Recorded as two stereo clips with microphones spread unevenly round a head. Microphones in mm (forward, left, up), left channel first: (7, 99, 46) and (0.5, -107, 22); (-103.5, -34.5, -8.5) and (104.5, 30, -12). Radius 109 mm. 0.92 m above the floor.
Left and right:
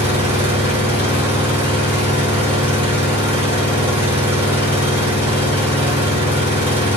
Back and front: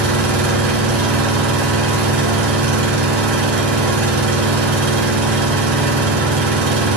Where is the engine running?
10° right, 2.0 m.